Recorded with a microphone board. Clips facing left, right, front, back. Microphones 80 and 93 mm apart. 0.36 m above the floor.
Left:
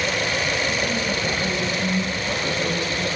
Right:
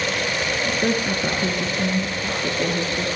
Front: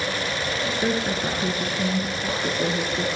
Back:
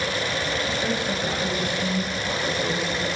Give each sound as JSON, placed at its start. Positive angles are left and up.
{"t": 0.7, "sound": "a woman speaking", "azimuth_deg": -60, "distance_m": 6.0}